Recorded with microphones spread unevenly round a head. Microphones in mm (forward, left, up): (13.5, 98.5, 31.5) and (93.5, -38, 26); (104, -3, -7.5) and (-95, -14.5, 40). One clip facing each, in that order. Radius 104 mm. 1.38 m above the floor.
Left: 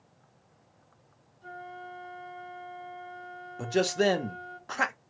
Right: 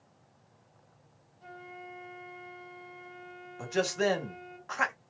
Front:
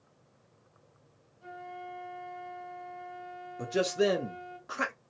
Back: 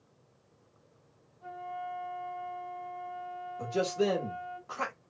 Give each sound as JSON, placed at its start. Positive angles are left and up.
{"t": 1.4, "sound": "a flute", "azimuth_deg": -60, "distance_m": 2.0}
{"t": 3.6, "sound": "a man speaking", "azimuth_deg": 65, "distance_m": 1.0}